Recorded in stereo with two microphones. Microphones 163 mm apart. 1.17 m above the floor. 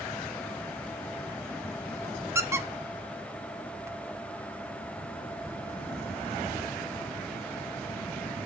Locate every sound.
2.4 s a squeak: 15° right (ahead or behind), 0.8 m